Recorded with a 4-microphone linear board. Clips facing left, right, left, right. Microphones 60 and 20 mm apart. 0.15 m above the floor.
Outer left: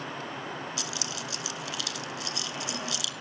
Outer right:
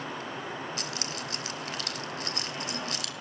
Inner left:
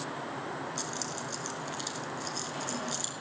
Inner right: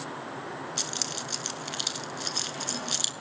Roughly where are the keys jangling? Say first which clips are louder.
Even, inner right 4 dB; right.